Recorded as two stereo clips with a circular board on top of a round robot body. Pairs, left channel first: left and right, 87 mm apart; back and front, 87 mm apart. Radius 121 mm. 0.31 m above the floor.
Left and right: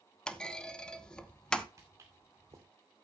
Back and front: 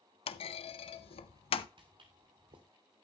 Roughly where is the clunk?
Behind.